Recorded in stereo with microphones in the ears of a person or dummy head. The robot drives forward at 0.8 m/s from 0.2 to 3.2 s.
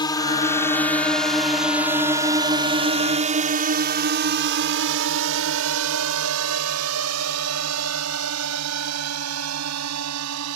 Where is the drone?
15° left (ahead or behind); by 10.6 s 80° right.